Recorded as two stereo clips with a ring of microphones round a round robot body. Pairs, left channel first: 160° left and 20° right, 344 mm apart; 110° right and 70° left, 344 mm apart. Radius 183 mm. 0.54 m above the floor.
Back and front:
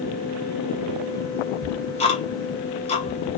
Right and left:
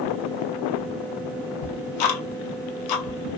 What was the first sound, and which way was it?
Ticking, 130° right.